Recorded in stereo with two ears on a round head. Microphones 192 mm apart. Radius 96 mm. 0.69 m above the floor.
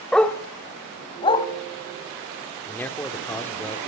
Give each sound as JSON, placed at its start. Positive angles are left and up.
{"t": 0.1, "sound": "a dog barking", "side_deg": 0, "distance_m": 1.2}
{"t": 2.7, "sound": "a man speaking", "side_deg": 10, "distance_m": 2.0}